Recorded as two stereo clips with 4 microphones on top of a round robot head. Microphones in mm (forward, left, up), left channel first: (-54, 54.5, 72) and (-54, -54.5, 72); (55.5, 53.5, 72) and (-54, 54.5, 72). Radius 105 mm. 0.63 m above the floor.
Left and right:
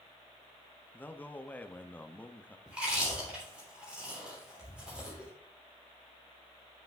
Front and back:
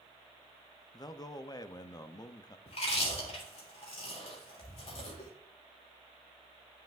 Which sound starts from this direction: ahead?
Chewing, at 2.7 s.